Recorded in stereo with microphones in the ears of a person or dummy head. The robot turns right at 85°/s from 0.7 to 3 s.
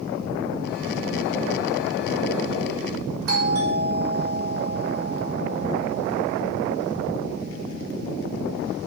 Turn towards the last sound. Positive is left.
turn(degrees=-60)  # may be behind; listen again after turning